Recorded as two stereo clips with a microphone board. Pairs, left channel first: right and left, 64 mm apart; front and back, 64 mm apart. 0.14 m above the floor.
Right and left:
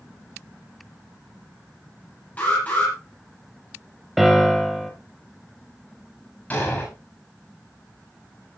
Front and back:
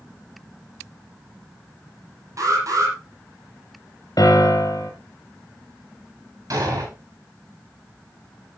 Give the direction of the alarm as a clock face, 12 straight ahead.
5 o'clock.